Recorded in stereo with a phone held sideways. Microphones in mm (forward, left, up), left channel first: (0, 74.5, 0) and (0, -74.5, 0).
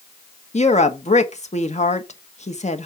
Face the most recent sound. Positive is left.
turn(degrees=50)  # may be behind; listen again after turning